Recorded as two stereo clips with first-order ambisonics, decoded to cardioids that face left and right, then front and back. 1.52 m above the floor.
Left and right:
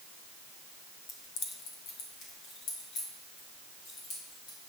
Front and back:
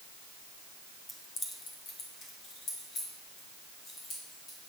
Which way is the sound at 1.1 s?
70° left.